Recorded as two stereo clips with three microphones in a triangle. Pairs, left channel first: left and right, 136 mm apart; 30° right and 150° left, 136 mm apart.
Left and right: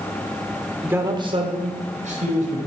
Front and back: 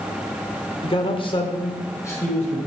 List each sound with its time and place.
0.8 s a man speaking: 15° right, 1.0 m; by 2.6 s 105° right, 2 m